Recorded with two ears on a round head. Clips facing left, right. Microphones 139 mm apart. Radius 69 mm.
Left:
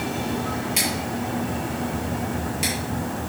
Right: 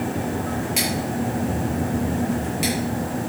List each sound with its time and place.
0.8 s scissors: 5° right (ahead or behind), 6.5 m